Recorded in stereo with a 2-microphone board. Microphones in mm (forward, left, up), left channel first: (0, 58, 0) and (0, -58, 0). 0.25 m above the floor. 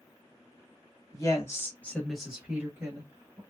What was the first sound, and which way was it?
A woman speaking, 30° left (ahead or behind).